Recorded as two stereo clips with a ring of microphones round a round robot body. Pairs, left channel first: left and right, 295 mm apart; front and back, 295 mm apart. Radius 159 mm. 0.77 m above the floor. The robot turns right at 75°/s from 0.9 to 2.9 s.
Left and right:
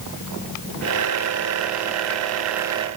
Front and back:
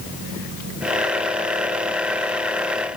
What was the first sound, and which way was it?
Only background noise.